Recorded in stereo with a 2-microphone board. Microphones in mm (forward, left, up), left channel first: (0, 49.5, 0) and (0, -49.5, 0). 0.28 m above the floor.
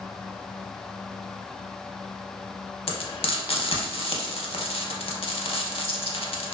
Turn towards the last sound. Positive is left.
turn(degrees=70)  # may be behind; listen again after turning